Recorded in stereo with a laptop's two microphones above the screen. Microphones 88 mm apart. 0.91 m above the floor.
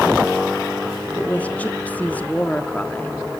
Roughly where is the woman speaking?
Centre.